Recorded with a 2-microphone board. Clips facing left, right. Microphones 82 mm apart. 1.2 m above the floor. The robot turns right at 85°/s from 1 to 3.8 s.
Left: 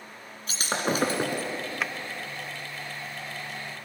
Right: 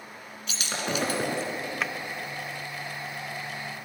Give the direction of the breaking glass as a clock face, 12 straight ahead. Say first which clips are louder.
Left 4 dB; 7 o'clock.